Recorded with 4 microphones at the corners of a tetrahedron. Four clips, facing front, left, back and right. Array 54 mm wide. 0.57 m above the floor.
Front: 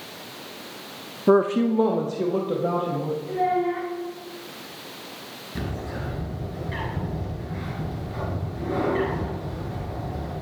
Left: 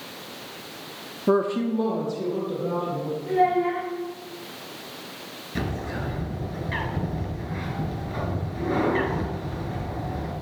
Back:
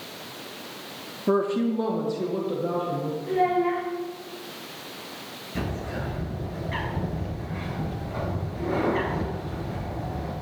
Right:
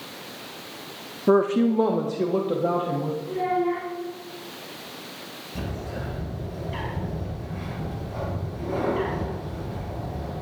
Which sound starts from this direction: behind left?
A child speaking, at 3.3 s.